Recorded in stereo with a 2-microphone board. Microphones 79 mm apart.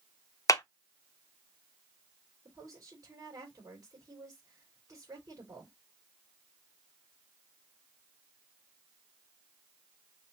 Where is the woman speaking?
55° right (ahead or behind), 4 m.